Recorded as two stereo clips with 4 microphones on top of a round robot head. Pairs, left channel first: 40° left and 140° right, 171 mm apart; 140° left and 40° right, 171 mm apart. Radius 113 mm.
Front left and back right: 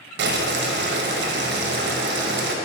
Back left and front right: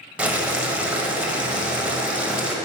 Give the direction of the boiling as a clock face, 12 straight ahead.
4 o'clock.